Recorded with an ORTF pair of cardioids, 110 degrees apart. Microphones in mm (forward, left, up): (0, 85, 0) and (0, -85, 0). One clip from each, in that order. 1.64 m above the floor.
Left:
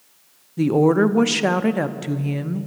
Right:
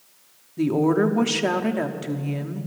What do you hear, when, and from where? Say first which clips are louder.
0.6 s a woman speaking: left 4 dB; 20° left, 0.7 m